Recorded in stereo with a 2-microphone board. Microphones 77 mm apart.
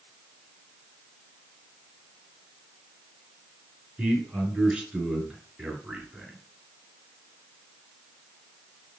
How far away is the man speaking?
About 2.5 m.